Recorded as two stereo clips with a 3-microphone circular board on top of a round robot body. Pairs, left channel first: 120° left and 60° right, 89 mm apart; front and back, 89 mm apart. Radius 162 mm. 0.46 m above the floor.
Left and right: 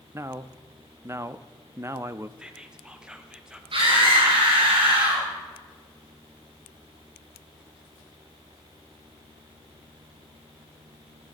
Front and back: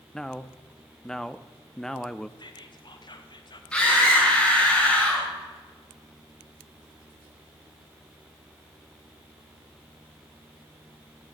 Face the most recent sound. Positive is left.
turn(degrees=-80)